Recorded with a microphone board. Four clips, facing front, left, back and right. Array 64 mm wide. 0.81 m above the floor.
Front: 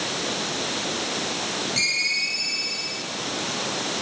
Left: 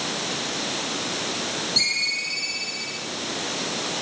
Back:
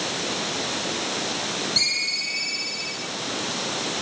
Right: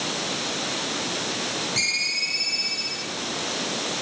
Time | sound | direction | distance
1.8 | a ringtone | 45° right | 10 m